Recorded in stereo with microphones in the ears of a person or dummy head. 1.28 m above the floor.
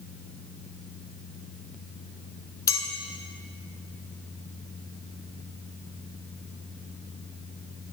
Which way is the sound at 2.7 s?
15° left (ahead or behind).